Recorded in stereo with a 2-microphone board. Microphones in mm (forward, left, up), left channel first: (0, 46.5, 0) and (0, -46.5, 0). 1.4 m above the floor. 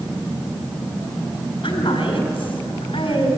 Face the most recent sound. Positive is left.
turn(degrees=85)